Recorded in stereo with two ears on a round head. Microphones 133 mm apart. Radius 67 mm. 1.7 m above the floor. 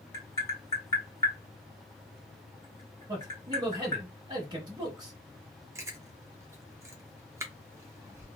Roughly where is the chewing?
Centre.